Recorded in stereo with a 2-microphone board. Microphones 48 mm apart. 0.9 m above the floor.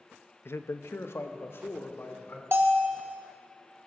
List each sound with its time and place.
0.5 s a man speaking: 50° left (ahead or behind), 0.7 m
2.5 s a bell: 50° right (ahead or behind), 1.4 m